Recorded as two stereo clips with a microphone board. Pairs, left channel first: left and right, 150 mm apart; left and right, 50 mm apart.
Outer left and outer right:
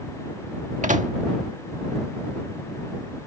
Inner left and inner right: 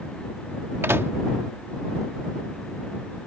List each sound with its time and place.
0.8 s a microwave: 55° right (ahead or behind)